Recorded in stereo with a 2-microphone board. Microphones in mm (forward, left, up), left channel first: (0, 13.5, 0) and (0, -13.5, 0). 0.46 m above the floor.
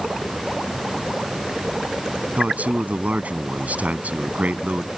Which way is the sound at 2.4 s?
70° right (ahead or behind).